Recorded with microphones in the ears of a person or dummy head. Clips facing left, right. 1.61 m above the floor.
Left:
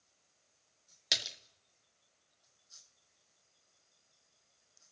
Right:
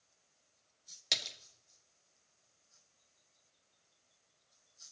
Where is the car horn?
No car horn in this recording.